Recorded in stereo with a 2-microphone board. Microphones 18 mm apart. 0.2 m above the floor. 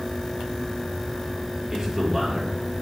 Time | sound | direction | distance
1.7 | a man speaking | 25° right (ahead or behind) | 3.5 m